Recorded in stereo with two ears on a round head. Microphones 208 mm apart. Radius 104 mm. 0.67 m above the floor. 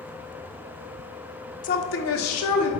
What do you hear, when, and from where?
1.6 s a woman speaking: 35° left (ahead or behind), 0.7 m; by 2.7 s 75° left (ahead or behind), 1.7 m